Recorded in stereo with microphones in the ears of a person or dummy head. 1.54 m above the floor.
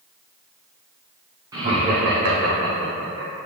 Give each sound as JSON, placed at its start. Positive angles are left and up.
{"t": 1.5, "sound": "laughter", "side_deg": -20, "distance_m": 0.8}